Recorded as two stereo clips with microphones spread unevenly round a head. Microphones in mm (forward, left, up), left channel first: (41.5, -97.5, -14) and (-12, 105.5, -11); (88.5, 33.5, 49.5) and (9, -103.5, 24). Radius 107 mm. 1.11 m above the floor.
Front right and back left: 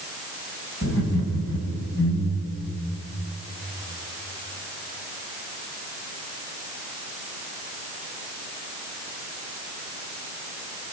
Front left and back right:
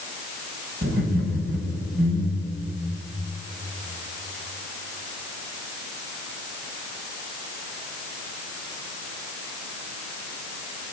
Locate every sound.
0.8 s laughter: 115° right, 6 m; by 2.5 s 110° right, 7 m